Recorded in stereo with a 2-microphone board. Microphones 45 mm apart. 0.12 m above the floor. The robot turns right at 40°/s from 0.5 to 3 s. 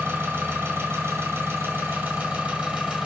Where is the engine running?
130° right, 1.4 m; by 3.1 s 30° right, 1.4 m.